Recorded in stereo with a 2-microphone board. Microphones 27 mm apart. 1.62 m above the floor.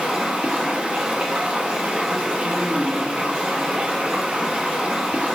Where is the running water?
55° right (ahead or behind), 0.8 m.